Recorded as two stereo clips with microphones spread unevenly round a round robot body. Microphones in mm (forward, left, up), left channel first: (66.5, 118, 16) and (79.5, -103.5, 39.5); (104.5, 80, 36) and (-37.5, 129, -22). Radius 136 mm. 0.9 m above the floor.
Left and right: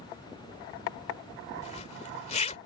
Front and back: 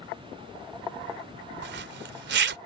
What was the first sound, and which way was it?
A zipper, 165° left.